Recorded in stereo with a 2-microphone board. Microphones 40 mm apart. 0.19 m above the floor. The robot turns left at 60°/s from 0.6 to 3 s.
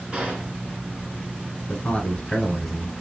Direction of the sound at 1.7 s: 55° left.